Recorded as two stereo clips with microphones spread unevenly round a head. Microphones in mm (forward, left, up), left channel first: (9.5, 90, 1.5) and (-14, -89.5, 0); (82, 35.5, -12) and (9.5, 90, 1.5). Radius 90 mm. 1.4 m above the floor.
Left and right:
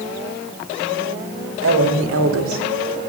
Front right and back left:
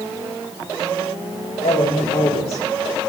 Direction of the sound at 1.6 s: 80° right.